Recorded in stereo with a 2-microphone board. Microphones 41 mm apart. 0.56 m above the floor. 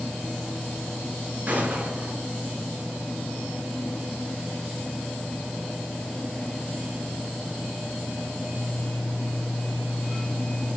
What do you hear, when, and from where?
1.5 s a gunshot: 50° right (ahead or behind), 4 m